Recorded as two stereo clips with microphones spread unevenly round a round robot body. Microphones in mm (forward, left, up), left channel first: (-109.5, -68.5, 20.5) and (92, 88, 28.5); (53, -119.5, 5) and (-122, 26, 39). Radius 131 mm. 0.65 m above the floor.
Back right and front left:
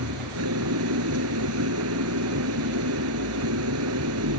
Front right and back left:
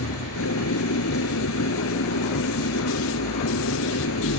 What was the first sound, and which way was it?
An engine running, straight ahead.